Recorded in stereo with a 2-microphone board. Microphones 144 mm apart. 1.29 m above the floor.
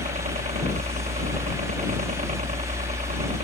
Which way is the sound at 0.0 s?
60° right (ahead or behind).